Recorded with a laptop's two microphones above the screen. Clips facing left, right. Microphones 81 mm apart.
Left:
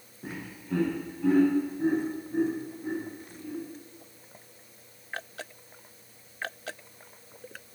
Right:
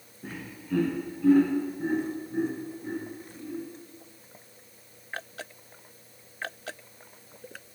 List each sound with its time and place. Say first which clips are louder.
0.2 s laughter: even; 15° left (ahead or behind), 0.7 m; by 3.6 s 25° left (ahead or behind), 3 m